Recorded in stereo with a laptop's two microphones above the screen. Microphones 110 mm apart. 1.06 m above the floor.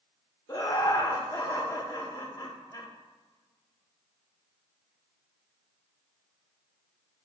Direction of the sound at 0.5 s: 30° left (ahead or behind).